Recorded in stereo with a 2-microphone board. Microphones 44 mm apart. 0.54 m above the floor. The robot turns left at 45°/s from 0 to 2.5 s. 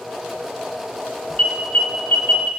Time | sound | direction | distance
1.4 | an alarm | 30° left (ahead or behind) | 2.5 m